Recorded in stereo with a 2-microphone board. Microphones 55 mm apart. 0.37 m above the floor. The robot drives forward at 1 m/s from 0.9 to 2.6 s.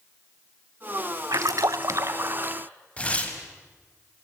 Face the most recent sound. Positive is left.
turn(degrees=20)  # may be behind; listen again after turning